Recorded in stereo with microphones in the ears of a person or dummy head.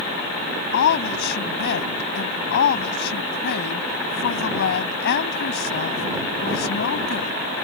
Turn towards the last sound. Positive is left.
turn(degrees=60)  # may be behind; listen again after turning